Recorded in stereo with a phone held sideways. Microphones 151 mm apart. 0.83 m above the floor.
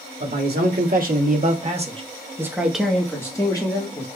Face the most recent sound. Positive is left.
turn(degrees=35)  # may be behind; listen again after turning